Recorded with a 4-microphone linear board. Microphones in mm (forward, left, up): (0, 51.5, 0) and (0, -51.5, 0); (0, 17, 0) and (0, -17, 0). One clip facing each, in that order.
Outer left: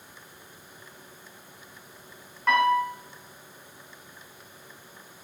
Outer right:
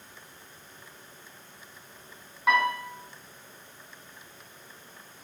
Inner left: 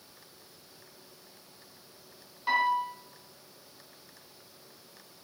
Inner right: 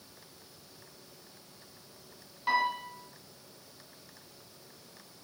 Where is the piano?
5° right (ahead or behind), 1.7 m.